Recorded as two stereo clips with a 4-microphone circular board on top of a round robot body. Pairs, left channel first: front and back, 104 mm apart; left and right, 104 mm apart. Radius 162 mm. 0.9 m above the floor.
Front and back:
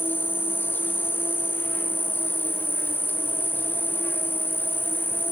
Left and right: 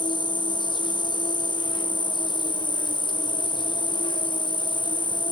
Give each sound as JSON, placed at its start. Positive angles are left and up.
{"t": 0.0, "sound": "an insect", "azimuth_deg": 65, "distance_m": 1.1}